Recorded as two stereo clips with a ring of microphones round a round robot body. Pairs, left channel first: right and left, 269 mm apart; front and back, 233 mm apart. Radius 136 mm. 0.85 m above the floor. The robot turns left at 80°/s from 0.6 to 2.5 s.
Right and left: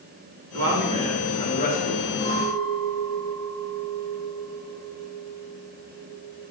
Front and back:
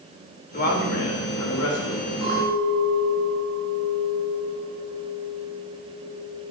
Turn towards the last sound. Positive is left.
turn(degrees=-165)